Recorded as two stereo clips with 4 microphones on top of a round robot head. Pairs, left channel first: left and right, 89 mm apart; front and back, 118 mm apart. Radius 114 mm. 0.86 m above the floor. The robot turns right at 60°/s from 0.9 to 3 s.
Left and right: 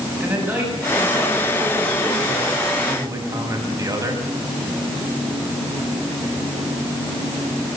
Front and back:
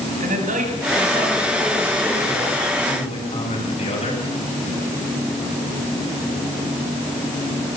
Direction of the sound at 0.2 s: 165° right.